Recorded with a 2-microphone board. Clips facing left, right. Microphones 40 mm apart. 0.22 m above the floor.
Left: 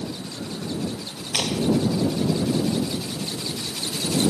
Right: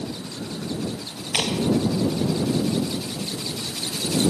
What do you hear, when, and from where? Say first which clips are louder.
1.3 s a clap: even; 15° right (ahead or behind)